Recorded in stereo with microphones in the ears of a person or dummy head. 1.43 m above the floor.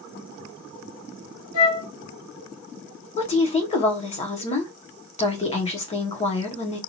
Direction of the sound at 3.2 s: 35° left (ahead or behind).